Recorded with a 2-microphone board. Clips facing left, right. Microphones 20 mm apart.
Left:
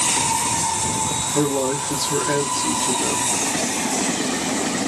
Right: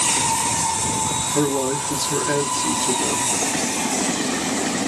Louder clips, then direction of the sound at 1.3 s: Left 1 dB; centre (ahead or behind).